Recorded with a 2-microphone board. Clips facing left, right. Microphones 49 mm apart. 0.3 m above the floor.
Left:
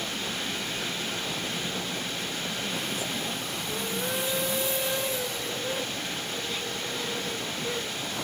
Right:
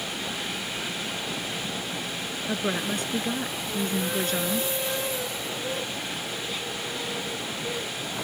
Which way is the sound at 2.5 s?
75° right (ahead or behind).